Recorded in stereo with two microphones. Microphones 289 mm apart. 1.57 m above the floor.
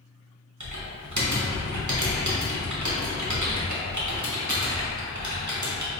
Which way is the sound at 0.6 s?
80° right.